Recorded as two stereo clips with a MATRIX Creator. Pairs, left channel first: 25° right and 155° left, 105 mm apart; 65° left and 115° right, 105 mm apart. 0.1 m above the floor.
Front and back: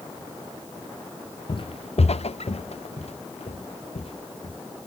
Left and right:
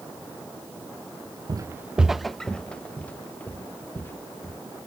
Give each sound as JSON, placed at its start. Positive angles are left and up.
{"t": 1.5, "sound": "footsteps", "azimuth_deg": -65}